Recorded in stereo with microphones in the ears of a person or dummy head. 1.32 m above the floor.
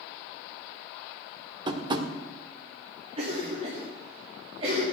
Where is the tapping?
30° right (ahead or behind), 1.2 m.